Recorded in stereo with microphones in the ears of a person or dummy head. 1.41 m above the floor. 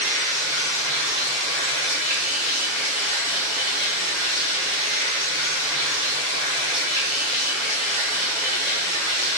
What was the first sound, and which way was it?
Running water, 10° right (ahead or behind).